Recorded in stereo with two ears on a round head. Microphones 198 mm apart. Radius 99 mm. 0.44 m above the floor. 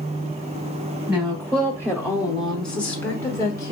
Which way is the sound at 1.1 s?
15° right (ahead or behind).